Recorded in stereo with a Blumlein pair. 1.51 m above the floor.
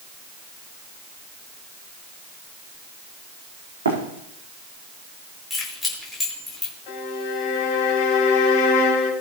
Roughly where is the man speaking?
I don't hear a man speaking.